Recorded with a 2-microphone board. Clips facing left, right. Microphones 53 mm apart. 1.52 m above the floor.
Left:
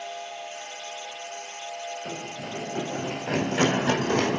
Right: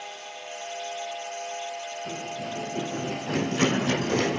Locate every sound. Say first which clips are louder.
2.0 s running footsteps: right 2 dB; 65° left (ahead or behind), 5.5 m; by 4.4 s 50° left (ahead or behind), 4 m